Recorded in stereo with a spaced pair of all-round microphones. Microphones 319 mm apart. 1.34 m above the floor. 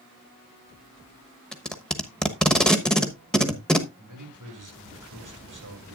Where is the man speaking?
70° right (ahead or behind), 3 m.